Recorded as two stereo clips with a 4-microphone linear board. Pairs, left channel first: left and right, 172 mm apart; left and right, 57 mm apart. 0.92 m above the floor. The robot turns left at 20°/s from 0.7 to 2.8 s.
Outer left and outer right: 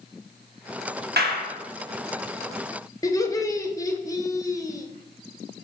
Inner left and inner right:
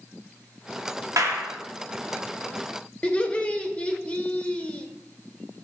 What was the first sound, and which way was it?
A clap, 75° right (ahead or behind).